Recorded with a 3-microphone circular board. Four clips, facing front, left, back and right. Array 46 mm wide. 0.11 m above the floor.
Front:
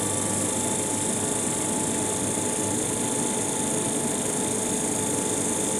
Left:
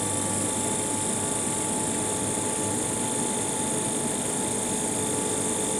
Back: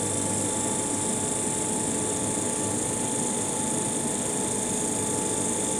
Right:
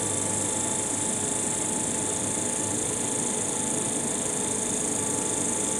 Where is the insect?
20° right, 3 m.